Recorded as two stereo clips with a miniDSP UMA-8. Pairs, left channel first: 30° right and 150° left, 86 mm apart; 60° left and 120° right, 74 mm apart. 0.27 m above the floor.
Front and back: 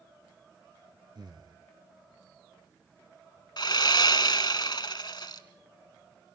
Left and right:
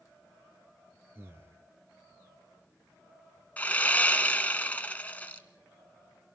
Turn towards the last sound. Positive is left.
turn(degrees=-10)